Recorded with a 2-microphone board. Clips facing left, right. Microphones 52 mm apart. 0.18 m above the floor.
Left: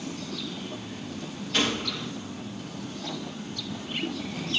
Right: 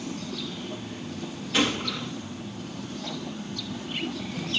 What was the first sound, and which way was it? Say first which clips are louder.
A gunshot: right 2 dB; 5° right (ahead or behind).